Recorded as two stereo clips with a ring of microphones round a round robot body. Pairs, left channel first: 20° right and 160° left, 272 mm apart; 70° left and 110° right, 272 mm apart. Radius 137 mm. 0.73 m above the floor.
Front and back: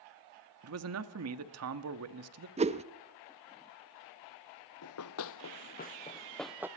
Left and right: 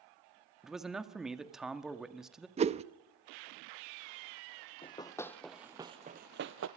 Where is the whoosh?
160° right, 0.7 m.